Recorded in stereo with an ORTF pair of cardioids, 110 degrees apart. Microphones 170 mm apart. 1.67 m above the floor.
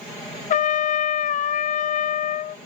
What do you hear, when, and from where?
0.5 s a trumpet: 50° left